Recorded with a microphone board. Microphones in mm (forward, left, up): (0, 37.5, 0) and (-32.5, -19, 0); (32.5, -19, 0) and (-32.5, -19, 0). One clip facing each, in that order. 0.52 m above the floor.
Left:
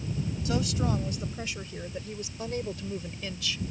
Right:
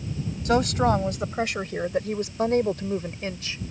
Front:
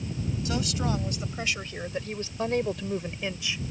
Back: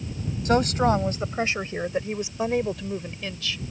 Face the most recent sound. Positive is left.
turn(degrees=-65)